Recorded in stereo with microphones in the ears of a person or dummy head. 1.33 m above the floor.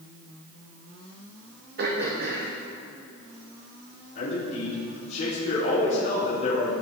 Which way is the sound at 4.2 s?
40° left (ahead or behind).